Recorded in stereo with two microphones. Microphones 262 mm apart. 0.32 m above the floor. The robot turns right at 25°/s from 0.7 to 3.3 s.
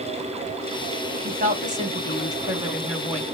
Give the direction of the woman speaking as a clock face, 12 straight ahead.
2 o'clock.